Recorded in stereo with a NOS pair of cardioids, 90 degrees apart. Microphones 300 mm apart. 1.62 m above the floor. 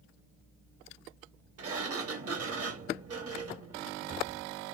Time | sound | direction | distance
1.6 | a sliding door | 50° right | 1.5 m